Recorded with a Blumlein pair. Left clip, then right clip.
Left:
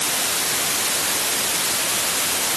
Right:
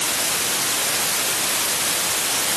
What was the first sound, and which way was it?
Only background noise.